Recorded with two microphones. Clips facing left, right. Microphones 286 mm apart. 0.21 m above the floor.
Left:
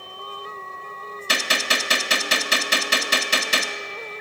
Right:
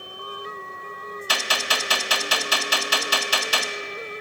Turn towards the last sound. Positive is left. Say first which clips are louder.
# left 3 dB
turn(degrees=30)  # may be behind; listen again after turning